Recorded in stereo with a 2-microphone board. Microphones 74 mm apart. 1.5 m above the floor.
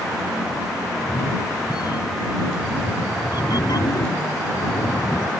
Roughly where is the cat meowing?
Left.